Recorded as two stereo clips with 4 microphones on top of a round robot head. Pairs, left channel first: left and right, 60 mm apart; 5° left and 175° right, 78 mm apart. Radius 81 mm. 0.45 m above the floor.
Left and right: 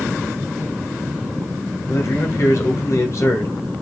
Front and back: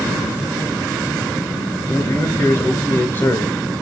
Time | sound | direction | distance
1.9 | a man speaking | 60° left | 2.5 m